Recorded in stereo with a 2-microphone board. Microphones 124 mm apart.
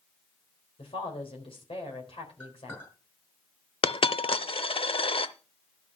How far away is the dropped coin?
About 0.7 m.